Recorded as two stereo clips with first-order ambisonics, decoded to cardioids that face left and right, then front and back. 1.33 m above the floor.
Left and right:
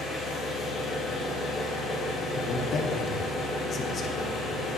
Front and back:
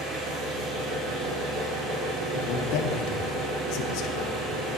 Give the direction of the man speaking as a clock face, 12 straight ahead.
11 o'clock.